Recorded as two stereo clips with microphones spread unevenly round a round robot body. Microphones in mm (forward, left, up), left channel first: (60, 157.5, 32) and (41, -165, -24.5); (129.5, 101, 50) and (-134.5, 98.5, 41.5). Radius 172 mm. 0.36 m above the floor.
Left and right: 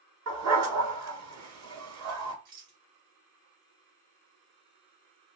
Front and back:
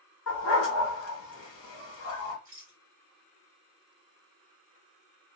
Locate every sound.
0.3 s a dog barking: 50° right, 1.1 m
2.5 s a rattle: 135° right, 2.0 m